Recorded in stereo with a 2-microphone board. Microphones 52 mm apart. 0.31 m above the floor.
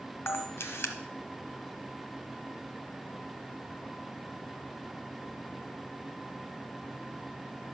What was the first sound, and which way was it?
A camera shutter, 60° left (ahead or behind).